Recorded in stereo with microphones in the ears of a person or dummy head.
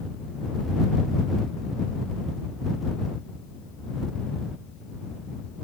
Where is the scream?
I don't hear a scream.